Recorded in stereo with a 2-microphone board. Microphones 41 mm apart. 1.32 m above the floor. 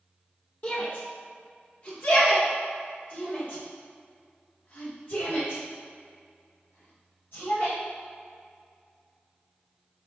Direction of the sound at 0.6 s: 45° left (ahead or behind).